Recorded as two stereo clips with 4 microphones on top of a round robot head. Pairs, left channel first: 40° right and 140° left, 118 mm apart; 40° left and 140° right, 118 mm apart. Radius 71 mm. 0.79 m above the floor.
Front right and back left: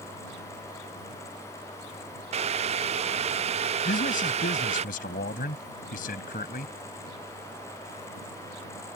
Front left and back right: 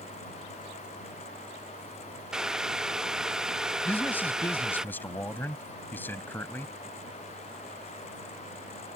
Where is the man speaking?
35° right.